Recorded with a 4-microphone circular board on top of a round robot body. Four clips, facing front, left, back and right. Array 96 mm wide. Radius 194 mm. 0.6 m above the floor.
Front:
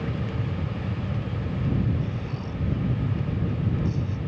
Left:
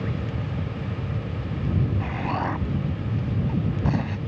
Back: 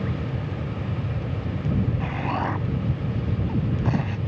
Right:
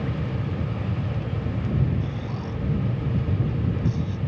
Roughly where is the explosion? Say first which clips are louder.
Left 5 dB, back 7 dB; behind left.